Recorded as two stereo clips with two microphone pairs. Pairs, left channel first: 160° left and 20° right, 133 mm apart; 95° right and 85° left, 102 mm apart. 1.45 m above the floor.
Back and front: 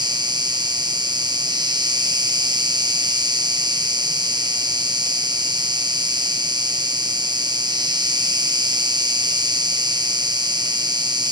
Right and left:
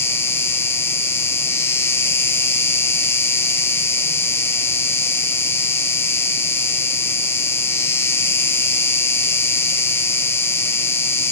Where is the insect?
45° right, 0.7 m.